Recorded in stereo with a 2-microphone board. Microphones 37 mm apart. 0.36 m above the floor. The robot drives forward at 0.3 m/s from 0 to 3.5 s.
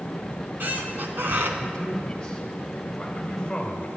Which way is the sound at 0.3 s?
55° right (ahead or behind).